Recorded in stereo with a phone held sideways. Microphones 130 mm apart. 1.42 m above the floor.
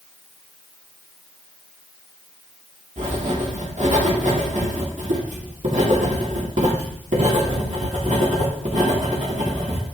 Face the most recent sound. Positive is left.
turn(degrees=-70)  # may be behind; listen again after turning